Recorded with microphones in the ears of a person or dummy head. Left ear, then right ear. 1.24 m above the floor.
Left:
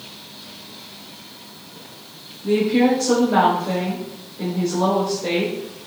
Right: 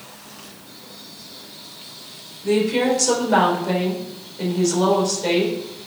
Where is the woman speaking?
85° right, 4 m.